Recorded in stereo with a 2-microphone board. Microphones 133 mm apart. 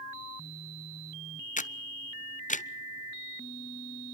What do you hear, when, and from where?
1.6 s a camera shutter: 70° left (ahead or behind), 0.5 m